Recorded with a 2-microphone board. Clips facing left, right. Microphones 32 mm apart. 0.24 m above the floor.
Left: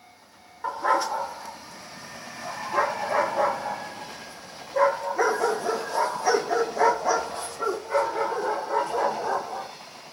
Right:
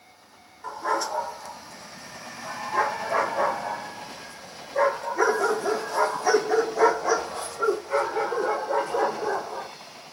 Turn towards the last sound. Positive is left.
turn(degrees=-5)  # may be behind; listen again after turning